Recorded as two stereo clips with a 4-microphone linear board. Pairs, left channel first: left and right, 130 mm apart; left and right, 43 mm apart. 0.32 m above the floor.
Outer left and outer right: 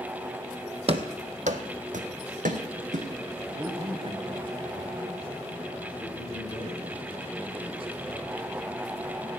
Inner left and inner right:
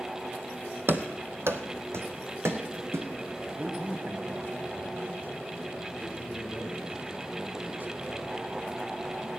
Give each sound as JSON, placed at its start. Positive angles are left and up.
{"t": 0.9, "sound": "running footsteps", "side_deg": -50, "distance_m": 0.8}
{"t": 3.5, "sound": "a man speaking", "side_deg": -45, "distance_m": 2.0}